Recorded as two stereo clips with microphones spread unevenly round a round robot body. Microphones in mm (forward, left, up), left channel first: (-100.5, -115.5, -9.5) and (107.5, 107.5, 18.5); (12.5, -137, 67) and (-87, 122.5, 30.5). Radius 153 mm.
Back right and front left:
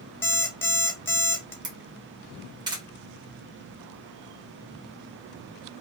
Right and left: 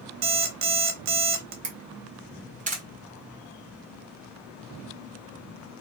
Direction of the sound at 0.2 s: 145° left.